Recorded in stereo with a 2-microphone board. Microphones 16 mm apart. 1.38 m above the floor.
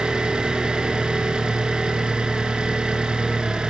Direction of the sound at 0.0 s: 70° right (ahead or behind).